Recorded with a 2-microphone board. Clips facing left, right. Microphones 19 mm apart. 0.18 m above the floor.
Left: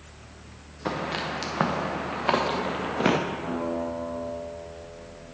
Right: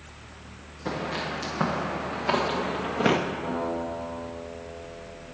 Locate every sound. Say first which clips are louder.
0.8 s footsteps: left 1 dB; 45° left (ahead or behind), 2.5 m; by 3.2 s centre (ahead or behind), 1.4 m
3.4 s a guitar: even; 20° left (ahead or behind), 3.5 m